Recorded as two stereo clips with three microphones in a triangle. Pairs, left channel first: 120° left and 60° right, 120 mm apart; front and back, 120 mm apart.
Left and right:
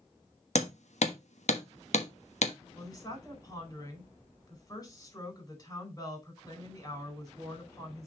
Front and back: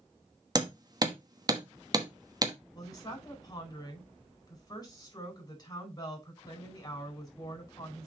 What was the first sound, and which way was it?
Hammering, 125° left.